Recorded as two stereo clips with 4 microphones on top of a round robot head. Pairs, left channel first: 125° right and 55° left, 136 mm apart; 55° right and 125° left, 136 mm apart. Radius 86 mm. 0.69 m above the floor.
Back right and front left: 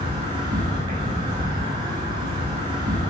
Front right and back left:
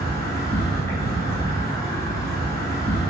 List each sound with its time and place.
0.0 s an insect: 5° left, 0.8 m